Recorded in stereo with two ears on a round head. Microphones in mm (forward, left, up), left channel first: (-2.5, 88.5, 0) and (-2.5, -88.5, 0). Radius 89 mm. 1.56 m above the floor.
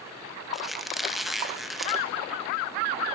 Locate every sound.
0.5 s a squeak: centre (ahead or behind), 0.9 m